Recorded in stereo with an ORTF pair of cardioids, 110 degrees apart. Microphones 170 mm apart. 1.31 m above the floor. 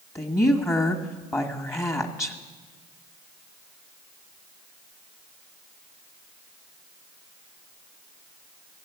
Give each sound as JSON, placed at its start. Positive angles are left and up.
{"t": 0.1, "sound": "a woman speaking", "azimuth_deg": 15, "distance_m": 1.5}